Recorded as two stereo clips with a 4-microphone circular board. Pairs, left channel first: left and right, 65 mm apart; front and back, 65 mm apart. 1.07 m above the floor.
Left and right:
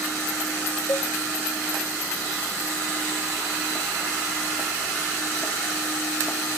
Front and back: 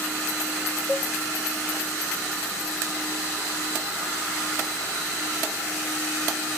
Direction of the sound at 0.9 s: 110° left.